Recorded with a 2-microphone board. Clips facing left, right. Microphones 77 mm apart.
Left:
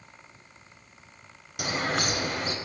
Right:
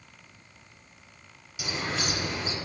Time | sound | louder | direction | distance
1.6 | a bird | left 4 dB | 55° left (ahead or behind) | 0.9 m